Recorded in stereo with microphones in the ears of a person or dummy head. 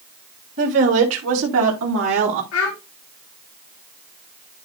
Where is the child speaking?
75° left (ahead or behind), 2.0 m.